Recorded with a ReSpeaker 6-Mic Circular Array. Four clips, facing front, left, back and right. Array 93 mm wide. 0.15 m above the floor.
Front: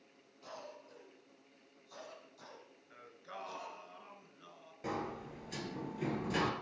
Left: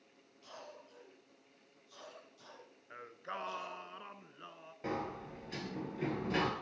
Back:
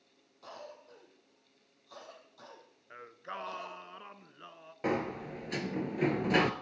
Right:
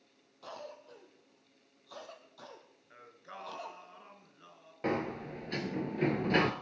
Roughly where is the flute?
No flute in this recording.